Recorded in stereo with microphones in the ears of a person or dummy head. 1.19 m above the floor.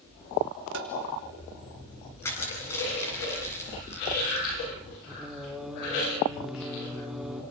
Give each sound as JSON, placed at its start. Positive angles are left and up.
{"t": 0.7, "sound": "tapping", "side_deg": -60, "distance_m": 1.6}
{"t": 2.2, "sound": "crushing", "side_deg": 10, "distance_m": 8.0}
{"t": 5.1, "sound": "singing", "side_deg": 0, "distance_m": 1.1}